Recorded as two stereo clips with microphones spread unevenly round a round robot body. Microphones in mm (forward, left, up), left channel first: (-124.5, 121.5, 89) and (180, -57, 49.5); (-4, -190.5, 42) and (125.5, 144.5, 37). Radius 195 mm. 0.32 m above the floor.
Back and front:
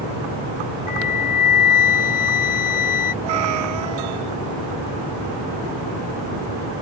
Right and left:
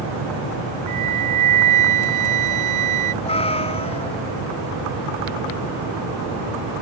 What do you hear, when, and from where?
0.9 s a flute: 115° left
3.2 s a cat meowing: 35° right